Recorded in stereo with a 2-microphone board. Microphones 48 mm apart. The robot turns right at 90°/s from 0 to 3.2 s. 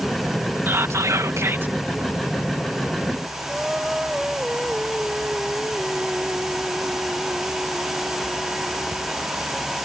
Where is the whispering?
130° right; by 1.8 s 35° right.